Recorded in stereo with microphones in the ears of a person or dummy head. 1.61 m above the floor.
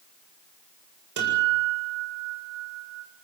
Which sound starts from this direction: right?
A guitar, at 1.2 s.